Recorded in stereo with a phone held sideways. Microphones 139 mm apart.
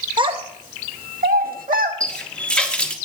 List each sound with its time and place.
0.2 s a child speaking: 30° right (ahead or behind), 0.7 m; by 1.9 s 70° right (ahead or behind), 1.4 m
2.0 s a running tap: 5° left (ahead or behind), 1.2 m